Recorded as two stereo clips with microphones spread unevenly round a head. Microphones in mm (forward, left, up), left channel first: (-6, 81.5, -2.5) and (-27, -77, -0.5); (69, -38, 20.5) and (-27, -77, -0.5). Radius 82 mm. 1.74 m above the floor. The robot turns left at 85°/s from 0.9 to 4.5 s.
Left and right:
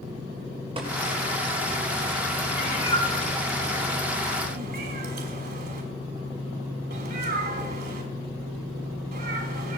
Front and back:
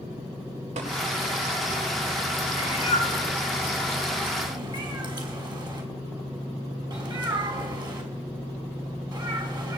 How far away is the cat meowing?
About 3 m.